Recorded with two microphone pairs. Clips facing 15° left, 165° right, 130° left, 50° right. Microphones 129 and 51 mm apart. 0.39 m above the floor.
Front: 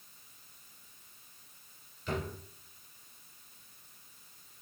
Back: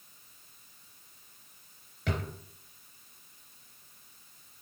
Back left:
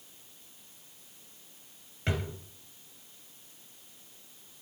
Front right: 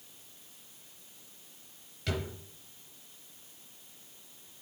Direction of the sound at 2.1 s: 175° right.